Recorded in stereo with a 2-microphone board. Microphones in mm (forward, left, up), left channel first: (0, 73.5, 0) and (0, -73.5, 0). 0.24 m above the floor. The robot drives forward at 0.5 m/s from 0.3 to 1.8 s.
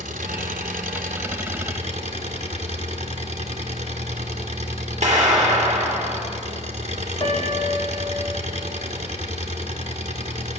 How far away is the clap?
About 3.5 m.